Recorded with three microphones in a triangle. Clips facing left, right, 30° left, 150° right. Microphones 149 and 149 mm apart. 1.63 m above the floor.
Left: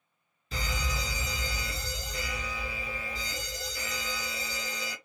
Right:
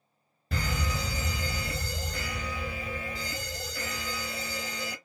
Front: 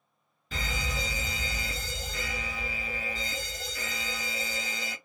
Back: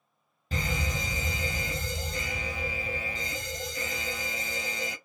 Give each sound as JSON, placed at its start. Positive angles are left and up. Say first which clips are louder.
{"t": 0.5, "sound": "a fire alarm", "louder": "right 3 dB, back 3 dB", "azimuth_deg": -105, "distance_m": 1.6}